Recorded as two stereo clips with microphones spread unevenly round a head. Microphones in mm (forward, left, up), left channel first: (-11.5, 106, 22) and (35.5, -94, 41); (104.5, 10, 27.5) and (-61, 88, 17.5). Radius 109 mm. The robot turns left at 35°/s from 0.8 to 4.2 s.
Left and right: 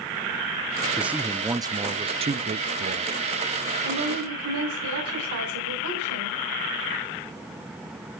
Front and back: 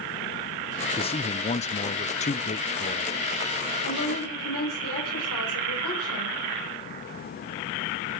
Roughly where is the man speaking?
Ahead.